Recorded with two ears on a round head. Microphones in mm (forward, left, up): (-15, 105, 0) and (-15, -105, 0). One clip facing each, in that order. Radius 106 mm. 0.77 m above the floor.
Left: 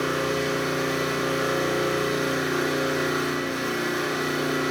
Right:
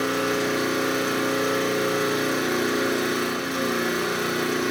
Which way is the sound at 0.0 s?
55° right (ahead or behind).